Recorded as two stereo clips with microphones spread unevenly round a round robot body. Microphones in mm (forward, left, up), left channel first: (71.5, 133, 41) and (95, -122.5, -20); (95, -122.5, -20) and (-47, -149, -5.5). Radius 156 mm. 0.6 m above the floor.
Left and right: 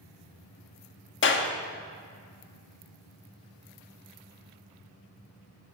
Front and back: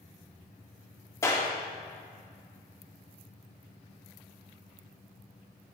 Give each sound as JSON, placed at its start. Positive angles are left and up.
{"t": 1.2, "sound": "a clap", "azimuth_deg": 60, "distance_m": 0.8}